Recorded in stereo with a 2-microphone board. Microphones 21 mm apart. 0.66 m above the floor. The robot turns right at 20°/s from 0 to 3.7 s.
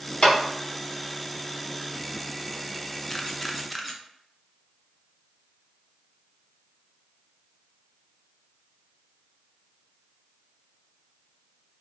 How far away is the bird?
No bird in this recording.